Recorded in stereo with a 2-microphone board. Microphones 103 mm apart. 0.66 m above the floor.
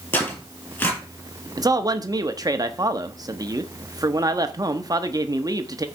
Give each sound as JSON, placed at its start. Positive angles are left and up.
{"t": 0.1, "sound": "tearing paper", "side_deg": 20, "distance_m": 5.5}
{"t": 1.6, "sound": "a man speaking", "side_deg": -35, "distance_m": 0.8}